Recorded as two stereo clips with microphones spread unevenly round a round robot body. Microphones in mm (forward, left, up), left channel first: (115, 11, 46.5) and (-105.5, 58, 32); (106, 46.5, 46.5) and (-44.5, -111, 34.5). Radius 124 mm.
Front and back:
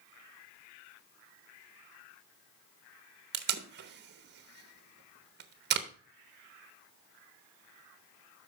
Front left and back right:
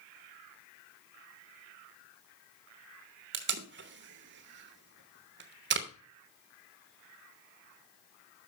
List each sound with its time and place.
3.3 s tape being pulled: 160° right, 0.9 m